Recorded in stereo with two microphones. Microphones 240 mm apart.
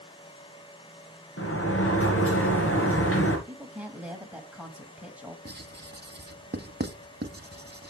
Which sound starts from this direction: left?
A sliding door, at 1.4 s.